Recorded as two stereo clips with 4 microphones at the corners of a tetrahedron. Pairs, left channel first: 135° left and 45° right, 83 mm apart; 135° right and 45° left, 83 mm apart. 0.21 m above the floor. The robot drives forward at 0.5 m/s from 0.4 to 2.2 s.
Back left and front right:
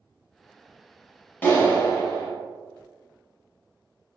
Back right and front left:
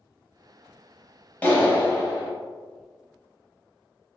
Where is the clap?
175° left, 0.8 m.